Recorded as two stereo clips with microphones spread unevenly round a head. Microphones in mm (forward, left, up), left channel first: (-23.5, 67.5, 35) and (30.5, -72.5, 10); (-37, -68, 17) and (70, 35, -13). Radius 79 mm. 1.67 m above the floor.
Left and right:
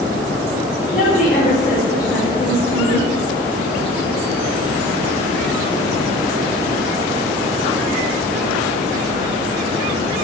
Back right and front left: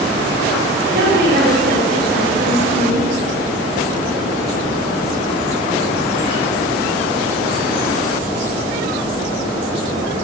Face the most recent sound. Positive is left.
turn(degrees=80)